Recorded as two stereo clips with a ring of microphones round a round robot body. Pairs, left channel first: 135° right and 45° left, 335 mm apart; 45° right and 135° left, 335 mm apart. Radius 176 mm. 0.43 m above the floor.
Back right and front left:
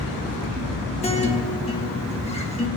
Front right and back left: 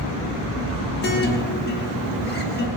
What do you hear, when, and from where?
1.0 s a guitar: 75° right, 1.5 m